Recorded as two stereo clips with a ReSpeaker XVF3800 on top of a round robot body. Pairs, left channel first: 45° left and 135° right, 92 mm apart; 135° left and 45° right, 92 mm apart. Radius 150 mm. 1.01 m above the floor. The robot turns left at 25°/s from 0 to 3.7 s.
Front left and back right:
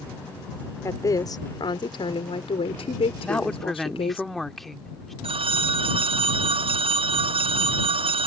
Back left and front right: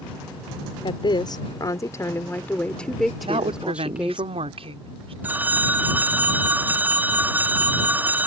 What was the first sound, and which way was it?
A woman speaking, 105° left.